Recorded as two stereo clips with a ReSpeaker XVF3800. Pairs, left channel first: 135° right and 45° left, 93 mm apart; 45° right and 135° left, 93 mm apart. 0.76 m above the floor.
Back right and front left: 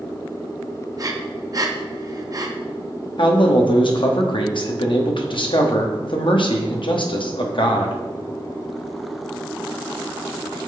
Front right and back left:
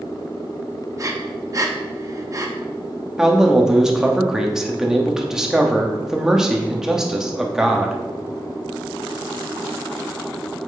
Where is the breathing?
90° left, 0.6 m.